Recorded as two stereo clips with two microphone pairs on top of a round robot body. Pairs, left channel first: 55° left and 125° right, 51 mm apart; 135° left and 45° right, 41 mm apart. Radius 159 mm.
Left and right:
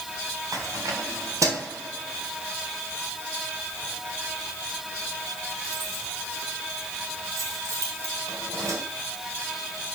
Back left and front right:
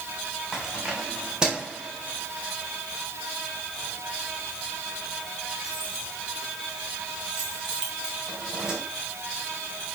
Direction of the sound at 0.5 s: 120° right.